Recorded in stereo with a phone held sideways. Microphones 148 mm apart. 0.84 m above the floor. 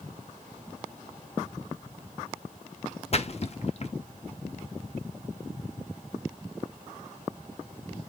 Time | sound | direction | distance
3.1 | a splash | 45° left (ahead or behind) | 0.5 m